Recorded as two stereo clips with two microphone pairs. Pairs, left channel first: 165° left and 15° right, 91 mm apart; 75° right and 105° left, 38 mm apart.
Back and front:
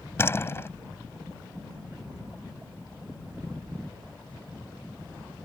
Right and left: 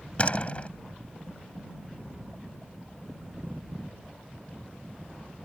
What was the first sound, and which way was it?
A door slam, 130° right.